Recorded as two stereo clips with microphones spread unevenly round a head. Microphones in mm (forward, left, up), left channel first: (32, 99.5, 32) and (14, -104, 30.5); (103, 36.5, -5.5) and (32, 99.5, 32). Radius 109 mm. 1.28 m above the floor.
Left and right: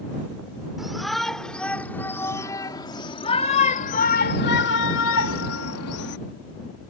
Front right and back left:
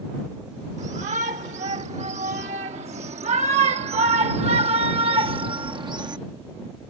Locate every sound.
0.8 s a shout: 175° left; by 6.2 s 95° left